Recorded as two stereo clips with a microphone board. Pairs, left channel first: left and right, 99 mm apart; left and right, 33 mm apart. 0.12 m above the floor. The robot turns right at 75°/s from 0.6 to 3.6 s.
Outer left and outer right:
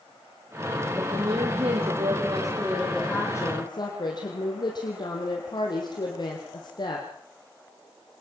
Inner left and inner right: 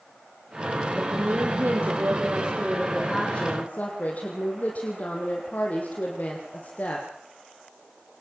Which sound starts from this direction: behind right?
A woman speaking, at 1.0 s.